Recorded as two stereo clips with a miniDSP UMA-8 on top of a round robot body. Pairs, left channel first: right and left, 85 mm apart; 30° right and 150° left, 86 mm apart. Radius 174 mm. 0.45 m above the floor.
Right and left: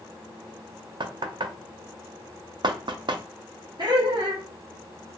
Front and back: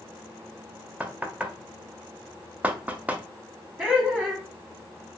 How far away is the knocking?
About 0.5 m.